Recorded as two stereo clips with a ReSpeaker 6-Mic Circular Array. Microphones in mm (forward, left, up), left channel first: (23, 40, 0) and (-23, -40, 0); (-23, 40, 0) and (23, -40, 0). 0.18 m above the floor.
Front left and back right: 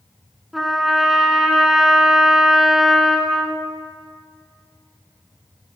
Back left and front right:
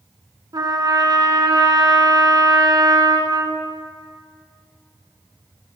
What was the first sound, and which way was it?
A trumpet, 30° right.